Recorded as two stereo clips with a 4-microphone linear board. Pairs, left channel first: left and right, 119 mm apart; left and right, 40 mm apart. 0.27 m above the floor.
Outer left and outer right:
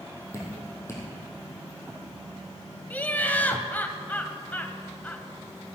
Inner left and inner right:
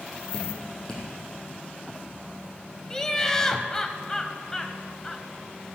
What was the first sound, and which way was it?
Dripping, 25° left (ahead or behind).